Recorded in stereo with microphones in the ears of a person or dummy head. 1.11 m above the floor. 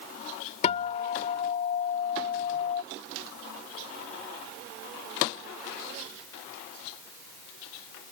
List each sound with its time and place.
0.6 s a guitar: 35° left (ahead or behind)